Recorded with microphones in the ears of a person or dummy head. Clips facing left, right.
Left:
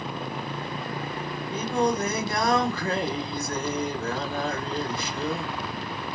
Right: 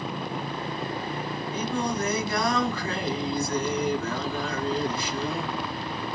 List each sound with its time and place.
1.5 s singing: 35° left (ahead or behind), 5.5 m